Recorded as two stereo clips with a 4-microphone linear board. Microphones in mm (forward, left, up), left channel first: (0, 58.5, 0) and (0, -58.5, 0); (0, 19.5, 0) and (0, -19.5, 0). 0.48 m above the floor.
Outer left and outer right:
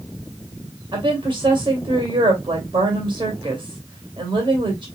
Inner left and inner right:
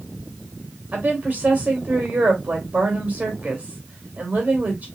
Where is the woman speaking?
45° right (ahead or behind), 2.5 m.